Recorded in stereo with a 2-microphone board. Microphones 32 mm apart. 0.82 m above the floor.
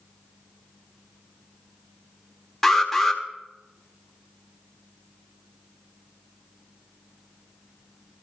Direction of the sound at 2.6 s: 5° left (ahead or behind).